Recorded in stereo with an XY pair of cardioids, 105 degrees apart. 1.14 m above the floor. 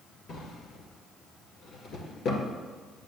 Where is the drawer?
65° left, 1.9 m.